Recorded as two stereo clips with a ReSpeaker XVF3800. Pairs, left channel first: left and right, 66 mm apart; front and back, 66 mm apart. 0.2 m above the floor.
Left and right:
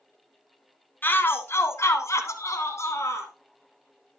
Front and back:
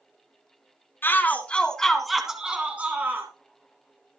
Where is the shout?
40° left, 2.5 m; by 3.3 s 125° left, 3 m.